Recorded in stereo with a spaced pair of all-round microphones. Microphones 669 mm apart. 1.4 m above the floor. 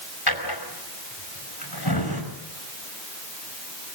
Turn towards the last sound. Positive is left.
turn(degrees=35)  # may be behind; listen again after turning